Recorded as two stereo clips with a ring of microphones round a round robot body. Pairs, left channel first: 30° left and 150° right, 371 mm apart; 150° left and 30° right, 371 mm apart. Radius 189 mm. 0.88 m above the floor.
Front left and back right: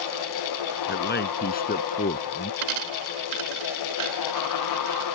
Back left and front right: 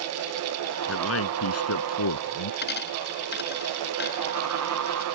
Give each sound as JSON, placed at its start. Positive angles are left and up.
{"t": 0.9, "sound": "a man speaking", "azimuth_deg": 95}
{"t": 2.6, "sound": "a dropped coin", "azimuth_deg": -145}